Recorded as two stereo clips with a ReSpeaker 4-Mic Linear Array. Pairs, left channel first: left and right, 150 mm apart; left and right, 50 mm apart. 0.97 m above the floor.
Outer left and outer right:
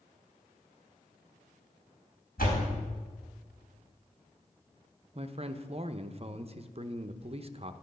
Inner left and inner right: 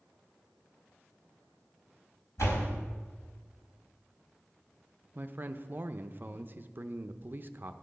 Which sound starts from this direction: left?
A door slam, at 2.4 s.